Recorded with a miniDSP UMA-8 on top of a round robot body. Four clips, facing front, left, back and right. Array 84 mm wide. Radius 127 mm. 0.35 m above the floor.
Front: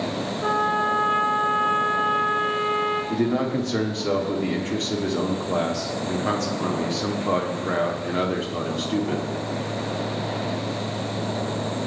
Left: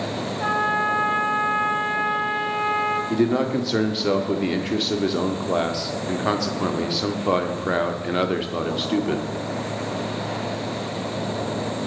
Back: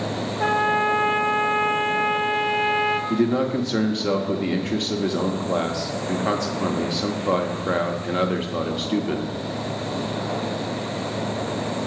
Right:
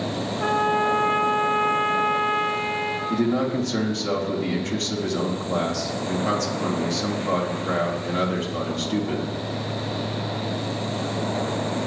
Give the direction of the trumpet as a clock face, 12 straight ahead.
6 o'clock.